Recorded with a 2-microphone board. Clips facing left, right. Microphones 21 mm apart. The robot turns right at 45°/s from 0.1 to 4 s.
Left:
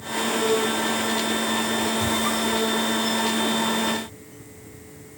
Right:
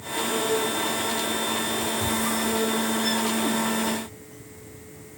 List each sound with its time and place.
2.0 s a squeak: 35° left (ahead or behind), 0.9 m; by 3.6 s 40° right (ahead or behind), 0.9 m